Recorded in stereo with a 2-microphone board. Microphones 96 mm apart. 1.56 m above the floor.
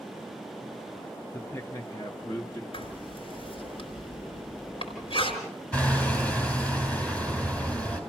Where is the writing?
70° left (ahead or behind), 4 m.